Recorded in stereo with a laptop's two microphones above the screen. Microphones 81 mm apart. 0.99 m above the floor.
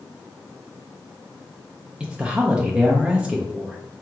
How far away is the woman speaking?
About 0.6 m.